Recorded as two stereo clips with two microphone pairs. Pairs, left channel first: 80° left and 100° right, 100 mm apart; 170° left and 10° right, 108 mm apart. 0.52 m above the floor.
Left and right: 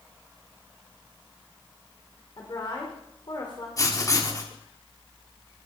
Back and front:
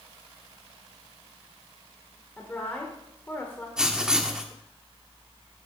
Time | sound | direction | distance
2.4 | a woman speaking | 100° left | 1.9 m
3.8 | writing | 70° left | 1.3 m